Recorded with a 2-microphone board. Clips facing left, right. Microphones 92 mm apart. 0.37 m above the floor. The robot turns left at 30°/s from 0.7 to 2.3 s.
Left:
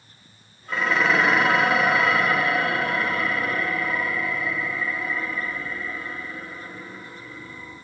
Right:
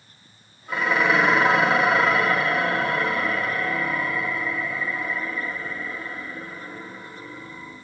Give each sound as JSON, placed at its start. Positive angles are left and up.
{"t": 0.7, "sound": "dishes clattering", "azimuth_deg": -20, "distance_m": 0.5}